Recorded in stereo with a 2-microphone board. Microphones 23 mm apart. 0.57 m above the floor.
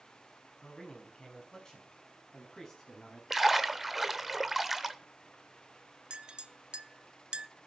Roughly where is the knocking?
No knocking in this recording.